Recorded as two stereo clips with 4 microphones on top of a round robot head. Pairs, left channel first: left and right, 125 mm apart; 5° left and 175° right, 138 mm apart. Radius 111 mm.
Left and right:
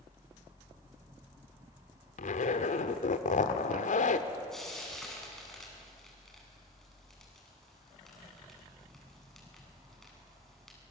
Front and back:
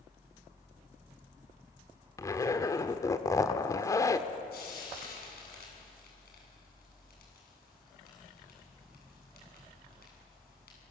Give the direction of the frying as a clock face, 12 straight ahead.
12 o'clock.